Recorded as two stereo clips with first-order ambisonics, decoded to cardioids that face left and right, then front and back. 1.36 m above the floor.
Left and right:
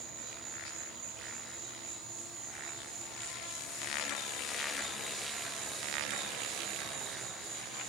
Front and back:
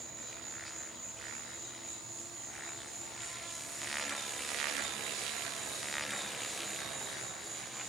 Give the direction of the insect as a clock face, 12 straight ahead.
3 o'clock.